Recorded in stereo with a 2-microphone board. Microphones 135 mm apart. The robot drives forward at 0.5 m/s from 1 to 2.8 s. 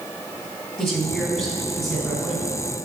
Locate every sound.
0.8 s a woman speaking: 15° left (ahead or behind), 1.3 m; by 2.5 s 10° left (ahead or behind), 1.9 m